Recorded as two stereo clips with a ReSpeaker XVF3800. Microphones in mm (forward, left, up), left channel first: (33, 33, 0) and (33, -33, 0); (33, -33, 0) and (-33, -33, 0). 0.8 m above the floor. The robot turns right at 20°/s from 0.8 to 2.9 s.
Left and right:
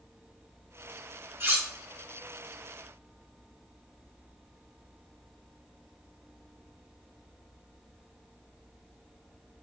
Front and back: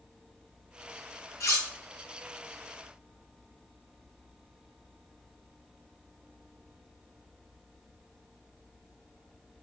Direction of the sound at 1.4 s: 40° right.